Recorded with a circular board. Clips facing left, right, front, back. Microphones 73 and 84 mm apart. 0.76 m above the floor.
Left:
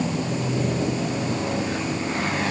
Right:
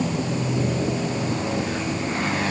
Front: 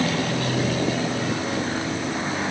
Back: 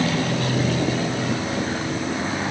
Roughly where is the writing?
No writing in this recording.